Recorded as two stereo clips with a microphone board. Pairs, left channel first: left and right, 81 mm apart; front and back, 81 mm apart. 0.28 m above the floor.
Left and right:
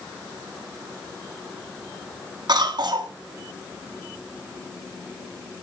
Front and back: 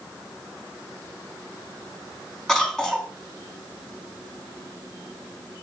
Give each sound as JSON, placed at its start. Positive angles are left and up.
{"t": 2.5, "sound": "a cough", "azimuth_deg": -80, "distance_m": 3.0}